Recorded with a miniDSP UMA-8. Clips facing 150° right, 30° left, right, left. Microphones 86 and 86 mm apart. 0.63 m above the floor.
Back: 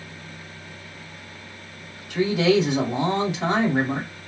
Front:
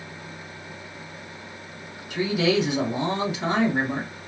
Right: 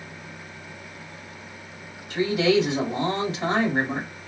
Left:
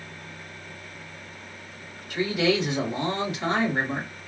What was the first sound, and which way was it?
A woman speaking, 150° right.